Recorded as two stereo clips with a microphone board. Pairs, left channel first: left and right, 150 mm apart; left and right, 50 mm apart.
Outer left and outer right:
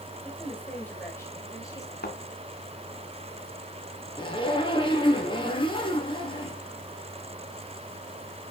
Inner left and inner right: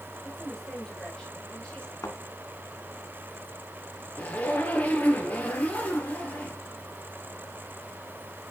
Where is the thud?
80° left, 2.0 m.